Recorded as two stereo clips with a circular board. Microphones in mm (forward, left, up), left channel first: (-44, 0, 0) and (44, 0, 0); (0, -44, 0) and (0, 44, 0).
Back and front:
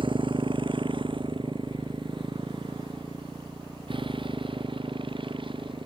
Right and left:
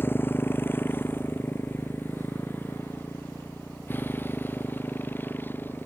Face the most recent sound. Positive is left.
turn(degrees=-20)